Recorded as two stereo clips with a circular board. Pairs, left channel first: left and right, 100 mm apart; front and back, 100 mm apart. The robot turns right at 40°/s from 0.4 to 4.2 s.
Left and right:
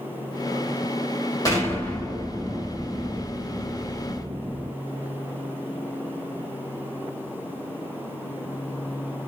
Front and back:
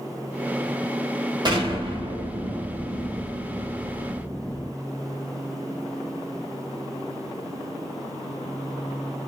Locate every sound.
1.4 s an explosion: 140° left, 1.2 m; by 4.7 s 110° right, 1.2 m